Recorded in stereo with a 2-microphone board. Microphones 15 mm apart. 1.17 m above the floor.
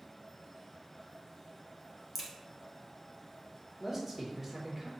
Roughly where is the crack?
Centre.